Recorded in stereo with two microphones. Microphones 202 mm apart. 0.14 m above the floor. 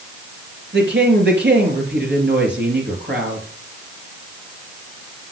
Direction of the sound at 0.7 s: 60° right (ahead or behind).